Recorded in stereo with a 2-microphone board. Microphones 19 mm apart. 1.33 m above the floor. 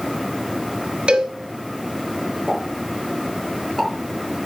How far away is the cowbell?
About 1.3 m.